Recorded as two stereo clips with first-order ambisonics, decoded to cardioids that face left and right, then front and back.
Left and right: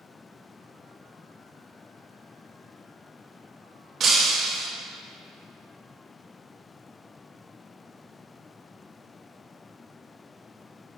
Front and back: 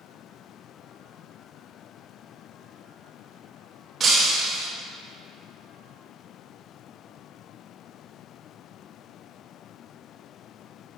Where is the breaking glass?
120° right, 1.3 m.